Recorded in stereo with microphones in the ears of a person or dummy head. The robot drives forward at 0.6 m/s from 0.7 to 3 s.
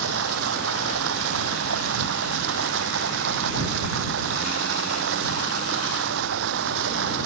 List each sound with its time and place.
0.0 s running water: 75° right (ahead or behind); by 7.3 s 70° right (ahead or behind)